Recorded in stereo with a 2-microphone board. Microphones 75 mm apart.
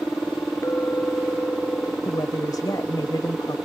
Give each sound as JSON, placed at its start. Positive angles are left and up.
{"t": 0.6, "sound": "a clink", "side_deg": 35}
{"t": 2.0, "sound": "a woman speaking", "side_deg": 65}